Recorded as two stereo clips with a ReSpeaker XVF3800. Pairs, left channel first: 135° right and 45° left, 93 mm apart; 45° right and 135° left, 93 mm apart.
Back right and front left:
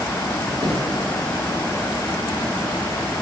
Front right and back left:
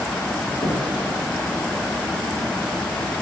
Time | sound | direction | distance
0.6 | knocking | straight ahead | 7.5 m